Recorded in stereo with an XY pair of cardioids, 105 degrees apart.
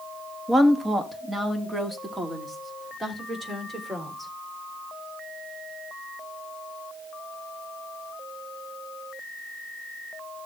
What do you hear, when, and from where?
0.5 s a woman speaking: 20° right, 1.4 m